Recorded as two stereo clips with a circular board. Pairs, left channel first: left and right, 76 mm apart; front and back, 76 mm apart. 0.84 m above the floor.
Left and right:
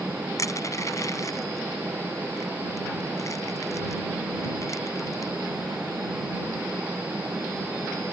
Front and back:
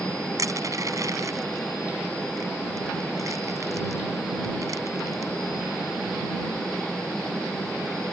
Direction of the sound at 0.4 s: 135° left.